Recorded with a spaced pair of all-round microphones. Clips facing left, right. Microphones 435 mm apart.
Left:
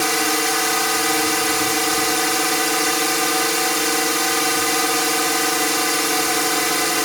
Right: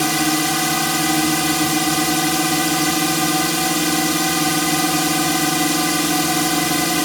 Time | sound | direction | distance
0.0 | a drone | 50° right (ahead or behind) | ?